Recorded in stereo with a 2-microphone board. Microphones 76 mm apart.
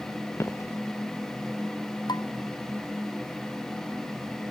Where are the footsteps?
40° left (ahead or behind).